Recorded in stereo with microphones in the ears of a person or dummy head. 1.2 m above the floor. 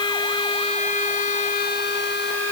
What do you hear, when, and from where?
Only background noise.